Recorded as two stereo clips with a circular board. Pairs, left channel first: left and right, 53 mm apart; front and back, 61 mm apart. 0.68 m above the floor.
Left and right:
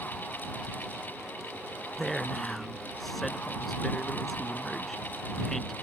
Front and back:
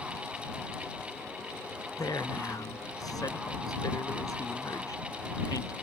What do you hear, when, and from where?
2.0 s a man speaking: straight ahead